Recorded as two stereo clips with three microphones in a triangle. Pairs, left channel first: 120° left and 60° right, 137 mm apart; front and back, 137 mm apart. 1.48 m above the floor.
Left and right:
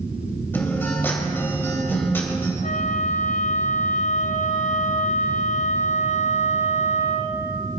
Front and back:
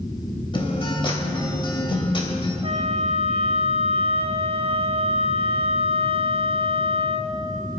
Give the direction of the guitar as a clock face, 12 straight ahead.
10 o'clock.